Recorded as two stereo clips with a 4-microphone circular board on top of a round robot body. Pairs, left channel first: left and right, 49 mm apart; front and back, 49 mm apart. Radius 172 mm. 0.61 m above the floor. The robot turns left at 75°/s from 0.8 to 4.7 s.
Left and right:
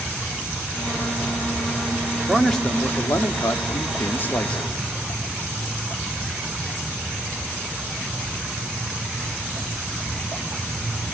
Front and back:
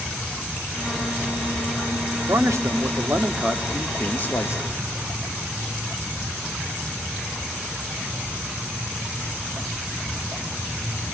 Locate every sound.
2.3 s a man speaking: 170° right, 1.9 m; by 4.7 s 10° left, 1.9 m